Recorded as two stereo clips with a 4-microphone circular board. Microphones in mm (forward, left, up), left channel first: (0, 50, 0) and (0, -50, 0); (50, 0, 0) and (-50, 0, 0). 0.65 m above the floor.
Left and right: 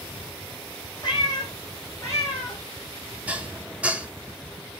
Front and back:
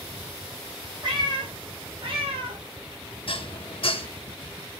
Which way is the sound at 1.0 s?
135° left.